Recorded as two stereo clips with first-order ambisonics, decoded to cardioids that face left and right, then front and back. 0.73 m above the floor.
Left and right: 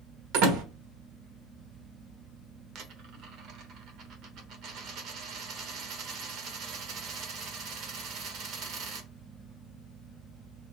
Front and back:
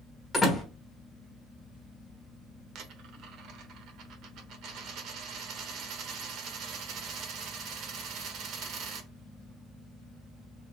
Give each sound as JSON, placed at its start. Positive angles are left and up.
{"t": 0.3, "sound": "a door slam", "azimuth_deg": -85, "distance_m": 1.4}
{"t": 2.8, "sound": "a dropped coin", "azimuth_deg": -135, "distance_m": 1.1}